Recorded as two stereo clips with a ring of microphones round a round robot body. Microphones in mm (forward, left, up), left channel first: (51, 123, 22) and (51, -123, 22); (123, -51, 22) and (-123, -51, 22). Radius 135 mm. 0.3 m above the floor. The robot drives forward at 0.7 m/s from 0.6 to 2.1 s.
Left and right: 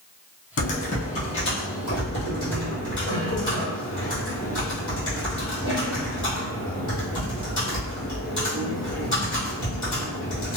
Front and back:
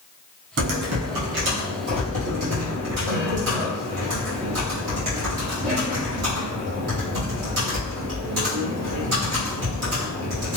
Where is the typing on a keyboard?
140° left, 0.6 m; by 10.6 s 165° left, 1.5 m.